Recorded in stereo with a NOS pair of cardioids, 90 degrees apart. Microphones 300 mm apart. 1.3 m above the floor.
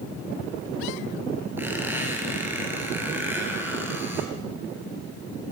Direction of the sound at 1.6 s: 5° right.